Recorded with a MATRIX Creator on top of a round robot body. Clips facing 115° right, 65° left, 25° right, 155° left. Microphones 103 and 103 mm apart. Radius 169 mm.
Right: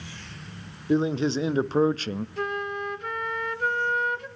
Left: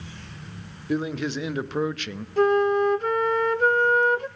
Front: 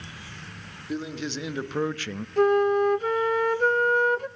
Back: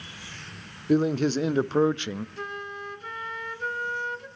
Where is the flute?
15° left, 0.6 m.